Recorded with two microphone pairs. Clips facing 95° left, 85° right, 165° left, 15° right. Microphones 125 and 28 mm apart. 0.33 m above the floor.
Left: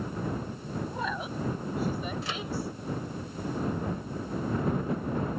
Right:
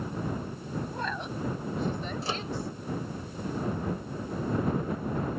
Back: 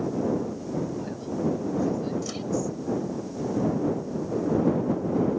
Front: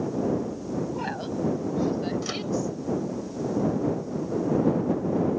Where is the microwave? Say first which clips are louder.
Right 2 dB, front 2 dB; 55° right.